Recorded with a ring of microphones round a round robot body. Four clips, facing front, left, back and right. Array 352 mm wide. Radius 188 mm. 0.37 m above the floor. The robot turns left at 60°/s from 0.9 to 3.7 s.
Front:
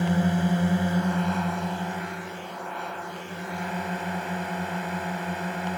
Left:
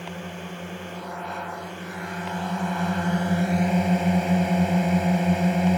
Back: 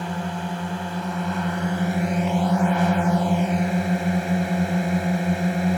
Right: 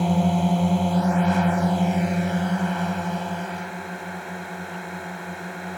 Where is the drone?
65° right; by 5.8 s 130° left.